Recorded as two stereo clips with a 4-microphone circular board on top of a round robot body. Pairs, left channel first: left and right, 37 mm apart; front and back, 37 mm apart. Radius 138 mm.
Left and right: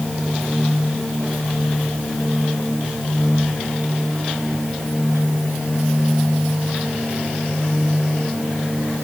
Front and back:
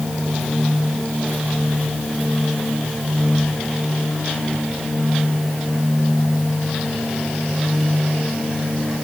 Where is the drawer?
No drawer in this recording.